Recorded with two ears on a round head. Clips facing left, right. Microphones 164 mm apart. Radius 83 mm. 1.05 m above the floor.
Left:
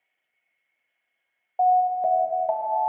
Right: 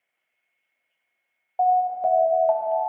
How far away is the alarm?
About 0.8 m.